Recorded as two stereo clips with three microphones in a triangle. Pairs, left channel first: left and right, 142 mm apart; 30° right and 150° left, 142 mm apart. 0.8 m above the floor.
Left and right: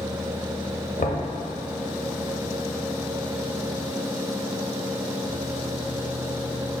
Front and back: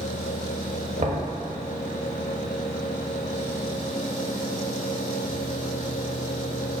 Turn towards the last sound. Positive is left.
turn(degrees=115)